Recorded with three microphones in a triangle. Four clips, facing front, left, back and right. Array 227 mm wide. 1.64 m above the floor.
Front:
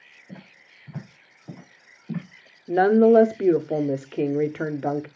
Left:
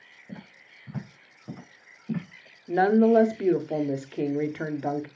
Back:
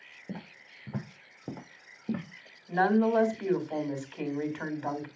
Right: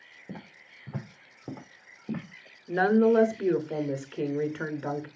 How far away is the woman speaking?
About 1.2 m.